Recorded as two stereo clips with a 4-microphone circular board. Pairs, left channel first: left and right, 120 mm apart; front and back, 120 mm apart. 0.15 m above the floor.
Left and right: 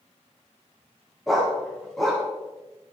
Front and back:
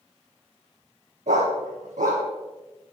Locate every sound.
1.3 s a dog barking: straight behind, 3 m